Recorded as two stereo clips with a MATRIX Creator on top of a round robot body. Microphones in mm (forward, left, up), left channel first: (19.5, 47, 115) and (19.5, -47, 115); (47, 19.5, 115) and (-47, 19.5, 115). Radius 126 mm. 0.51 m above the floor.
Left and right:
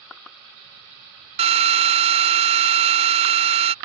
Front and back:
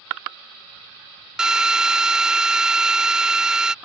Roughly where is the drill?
Right.